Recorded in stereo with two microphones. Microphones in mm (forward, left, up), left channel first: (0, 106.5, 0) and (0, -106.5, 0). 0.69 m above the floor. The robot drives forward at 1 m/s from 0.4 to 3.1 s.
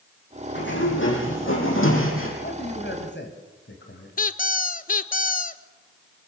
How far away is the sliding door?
About 6.5 m.